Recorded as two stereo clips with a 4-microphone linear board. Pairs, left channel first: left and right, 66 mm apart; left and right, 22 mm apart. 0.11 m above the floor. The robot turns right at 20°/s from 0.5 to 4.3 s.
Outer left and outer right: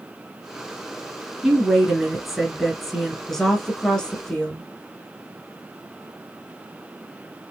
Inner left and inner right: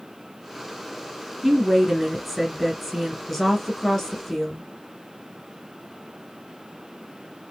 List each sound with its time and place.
1.4 s a woman speaking: 5° right (ahead or behind), 1.3 m; by 4.6 s 15° left (ahead or behind), 1.3 m